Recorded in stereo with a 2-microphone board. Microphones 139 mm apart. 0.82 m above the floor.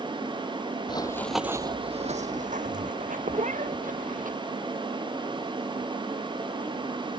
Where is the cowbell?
I don't hear a cowbell.